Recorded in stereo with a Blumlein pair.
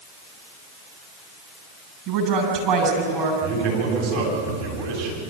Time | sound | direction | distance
2.1 | a woman speaking | 35° right | 6.5 m
3.4 | a man speaking | 45° right | 8.5 m